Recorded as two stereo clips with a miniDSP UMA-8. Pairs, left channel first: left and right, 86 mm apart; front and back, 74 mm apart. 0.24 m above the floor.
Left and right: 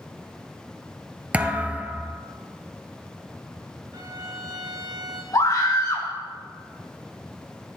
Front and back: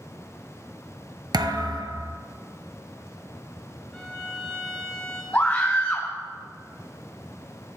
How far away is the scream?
About 2 m.